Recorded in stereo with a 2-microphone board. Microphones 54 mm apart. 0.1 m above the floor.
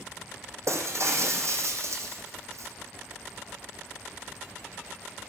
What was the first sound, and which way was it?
Breaking glass, 60° right (ahead or behind).